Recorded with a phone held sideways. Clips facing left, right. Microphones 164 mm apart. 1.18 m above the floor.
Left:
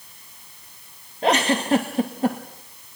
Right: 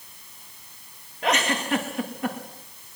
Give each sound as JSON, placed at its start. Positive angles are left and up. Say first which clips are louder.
{"t": 1.2, "sound": "a giggle", "louder": "left 5 dB", "side_deg": 30, "distance_m": 2.0}